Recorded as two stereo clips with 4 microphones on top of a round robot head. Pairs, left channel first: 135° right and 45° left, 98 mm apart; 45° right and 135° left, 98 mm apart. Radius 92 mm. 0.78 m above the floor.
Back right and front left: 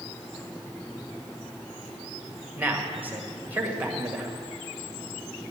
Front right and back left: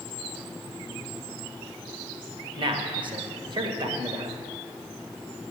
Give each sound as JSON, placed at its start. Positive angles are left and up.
{"t": 2.6, "sound": "a man speaking", "azimuth_deg": 115, "distance_m": 1.4}